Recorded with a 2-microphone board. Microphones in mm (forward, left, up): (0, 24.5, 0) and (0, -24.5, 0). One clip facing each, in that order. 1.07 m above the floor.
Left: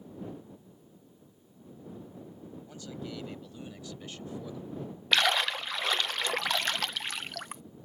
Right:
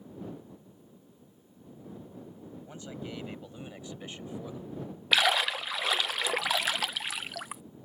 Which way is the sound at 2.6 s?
25° right (ahead or behind).